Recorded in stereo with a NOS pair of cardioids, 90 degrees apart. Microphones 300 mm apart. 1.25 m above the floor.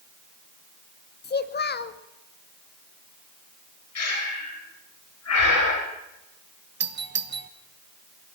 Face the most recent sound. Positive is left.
turn(degrees=-35)